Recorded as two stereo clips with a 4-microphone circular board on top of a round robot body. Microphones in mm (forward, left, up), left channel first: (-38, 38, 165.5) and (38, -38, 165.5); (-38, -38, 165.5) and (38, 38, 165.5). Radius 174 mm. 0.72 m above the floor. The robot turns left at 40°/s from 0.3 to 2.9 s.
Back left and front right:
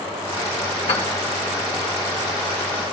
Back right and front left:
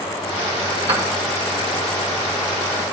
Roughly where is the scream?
I don't hear a scream.